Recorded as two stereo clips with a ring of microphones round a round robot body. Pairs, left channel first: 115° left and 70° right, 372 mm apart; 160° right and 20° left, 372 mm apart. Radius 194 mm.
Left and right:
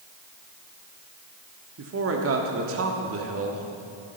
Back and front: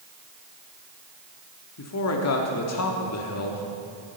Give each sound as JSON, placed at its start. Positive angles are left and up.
{"t": 1.8, "sound": "a man speaking", "azimuth_deg": -115, "distance_m": 1.5}